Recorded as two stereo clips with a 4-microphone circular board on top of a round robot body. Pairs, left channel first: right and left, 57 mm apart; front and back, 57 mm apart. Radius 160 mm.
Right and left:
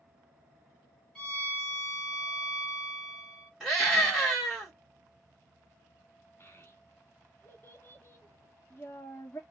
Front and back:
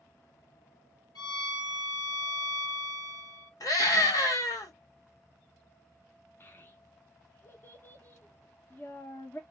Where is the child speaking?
50° right, 1.1 m.